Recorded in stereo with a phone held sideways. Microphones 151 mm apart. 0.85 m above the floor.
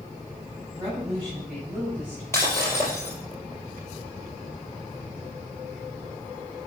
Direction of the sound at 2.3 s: 20° left (ahead or behind).